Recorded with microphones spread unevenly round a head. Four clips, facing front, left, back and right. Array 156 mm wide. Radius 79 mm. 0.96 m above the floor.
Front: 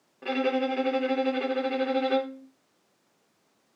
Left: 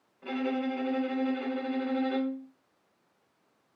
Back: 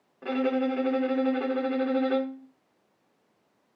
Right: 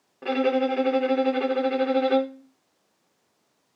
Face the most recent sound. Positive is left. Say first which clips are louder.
# right 8 dB, even
turn(degrees=-95)